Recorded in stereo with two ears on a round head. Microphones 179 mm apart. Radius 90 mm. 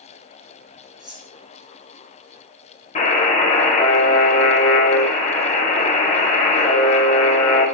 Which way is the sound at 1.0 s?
Centre (ahead or behind).